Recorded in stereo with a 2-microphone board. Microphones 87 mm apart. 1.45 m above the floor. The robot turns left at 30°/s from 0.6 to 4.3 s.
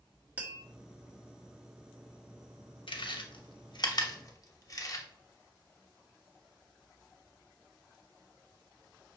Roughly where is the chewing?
Left.